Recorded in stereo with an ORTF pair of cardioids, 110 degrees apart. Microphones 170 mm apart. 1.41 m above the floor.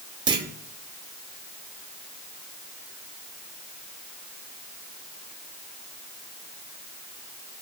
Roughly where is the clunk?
Ahead right.